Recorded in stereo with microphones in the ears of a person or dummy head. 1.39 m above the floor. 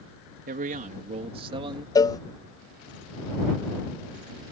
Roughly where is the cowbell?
Centre.